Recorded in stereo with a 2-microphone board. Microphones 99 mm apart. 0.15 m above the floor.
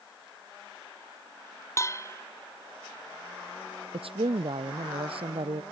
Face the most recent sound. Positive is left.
turn(degrees=-70)  # may be behind; listen again after turning